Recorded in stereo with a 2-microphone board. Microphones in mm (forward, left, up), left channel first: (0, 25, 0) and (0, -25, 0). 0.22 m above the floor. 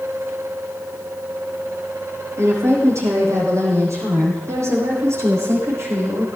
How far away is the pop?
I don't hear a pop.